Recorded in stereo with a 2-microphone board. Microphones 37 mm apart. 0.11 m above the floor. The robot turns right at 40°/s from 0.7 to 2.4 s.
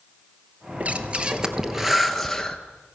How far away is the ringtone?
I don't hear a ringtone.